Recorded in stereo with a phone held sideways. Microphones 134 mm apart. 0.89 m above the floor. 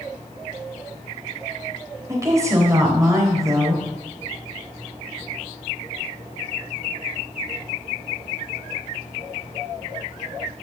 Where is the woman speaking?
25° right (ahead or behind), 3.5 m.